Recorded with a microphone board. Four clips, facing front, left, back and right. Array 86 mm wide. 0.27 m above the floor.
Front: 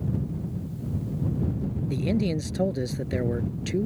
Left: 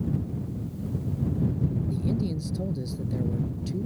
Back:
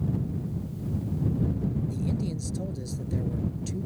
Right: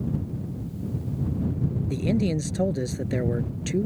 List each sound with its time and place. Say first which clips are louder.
1.9 s a man speaking: right 4 dB, front 5 dB; 45° right